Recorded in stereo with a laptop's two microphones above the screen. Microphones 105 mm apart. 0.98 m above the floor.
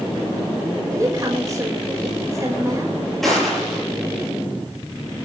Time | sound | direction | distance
0.9 | a woman speaking | 30° right (ahead or behind) | 5 m
3.2 | a gunshot | centre (ahead or behind) | 9.5 m